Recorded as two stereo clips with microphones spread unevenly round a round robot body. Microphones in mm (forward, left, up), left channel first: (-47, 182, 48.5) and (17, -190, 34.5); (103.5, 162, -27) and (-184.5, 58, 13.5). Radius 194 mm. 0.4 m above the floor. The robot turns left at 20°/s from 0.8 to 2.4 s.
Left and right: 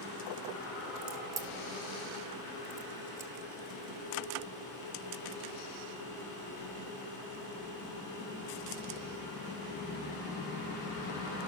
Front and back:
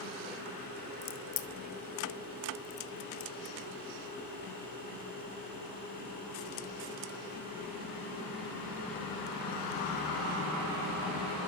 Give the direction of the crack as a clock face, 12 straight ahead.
12 o'clock.